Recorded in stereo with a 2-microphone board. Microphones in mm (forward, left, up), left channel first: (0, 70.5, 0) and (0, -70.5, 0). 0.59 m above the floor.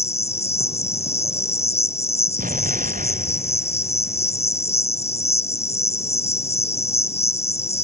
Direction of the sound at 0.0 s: 50° left (ahead or behind).